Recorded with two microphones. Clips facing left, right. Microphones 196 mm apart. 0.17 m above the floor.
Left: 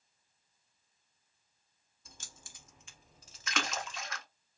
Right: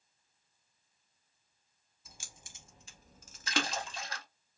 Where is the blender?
I don't hear a blender.